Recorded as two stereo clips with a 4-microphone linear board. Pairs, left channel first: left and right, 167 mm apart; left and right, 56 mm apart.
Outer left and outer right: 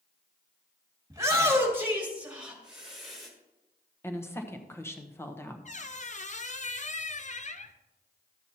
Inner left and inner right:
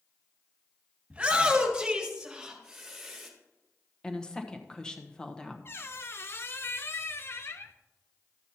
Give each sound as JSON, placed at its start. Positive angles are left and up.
{"t": 1.1, "sound": "a shout", "side_deg": -20, "distance_m": 2.0}
{"t": 4.0, "sound": "a woman speaking", "side_deg": 15, "distance_m": 1.0}
{"t": 5.7, "sound": "a squeak", "side_deg": 45, "distance_m": 0.5}